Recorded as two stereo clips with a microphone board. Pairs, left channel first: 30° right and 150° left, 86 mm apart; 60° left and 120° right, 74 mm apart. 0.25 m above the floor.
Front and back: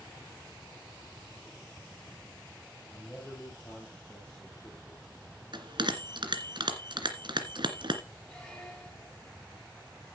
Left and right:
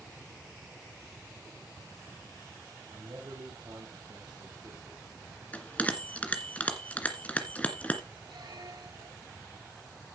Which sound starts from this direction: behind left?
A bell, at 5.5 s.